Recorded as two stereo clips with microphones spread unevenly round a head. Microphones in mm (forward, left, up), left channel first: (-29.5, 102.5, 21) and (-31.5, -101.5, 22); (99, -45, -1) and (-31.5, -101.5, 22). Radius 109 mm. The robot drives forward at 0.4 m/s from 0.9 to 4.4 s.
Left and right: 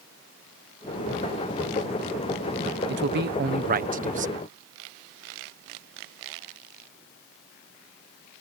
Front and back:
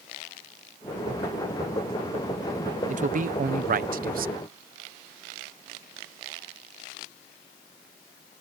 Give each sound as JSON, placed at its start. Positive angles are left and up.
{"t": 2.9, "sound": "a man speaking", "azimuth_deg": -125}